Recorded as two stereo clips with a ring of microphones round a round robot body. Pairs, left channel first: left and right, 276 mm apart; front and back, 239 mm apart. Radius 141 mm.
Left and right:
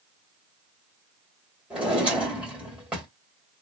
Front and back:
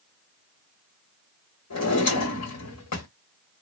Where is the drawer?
5° right, 1.8 m.